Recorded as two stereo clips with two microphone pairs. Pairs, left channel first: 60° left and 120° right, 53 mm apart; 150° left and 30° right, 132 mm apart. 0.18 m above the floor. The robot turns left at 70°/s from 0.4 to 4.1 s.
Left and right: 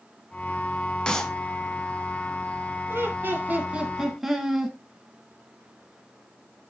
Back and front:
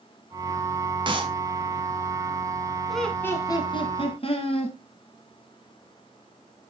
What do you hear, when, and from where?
1.1 s a clap: 5° right, 0.9 m; by 1.3 s 25° right, 0.9 m
2.9 s laughter: 120° right, 1.4 m; by 4.8 s 155° left, 1.4 m